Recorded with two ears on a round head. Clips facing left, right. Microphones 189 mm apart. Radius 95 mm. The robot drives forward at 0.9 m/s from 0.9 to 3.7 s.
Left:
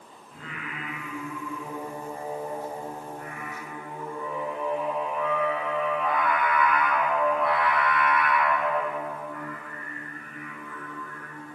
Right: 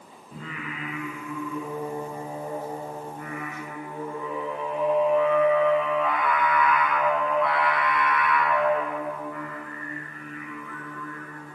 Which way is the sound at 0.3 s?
75° right (ahead or behind).